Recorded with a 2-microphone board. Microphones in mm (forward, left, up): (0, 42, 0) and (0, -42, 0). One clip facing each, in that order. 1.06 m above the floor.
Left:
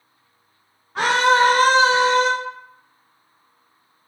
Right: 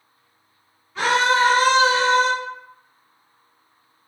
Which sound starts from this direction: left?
A scream, at 0.9 s.